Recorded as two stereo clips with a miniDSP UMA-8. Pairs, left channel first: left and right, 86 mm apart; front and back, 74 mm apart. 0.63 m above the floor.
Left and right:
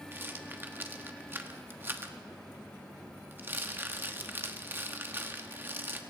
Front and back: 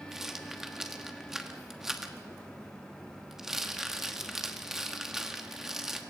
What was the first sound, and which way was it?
A rattle, 105° right.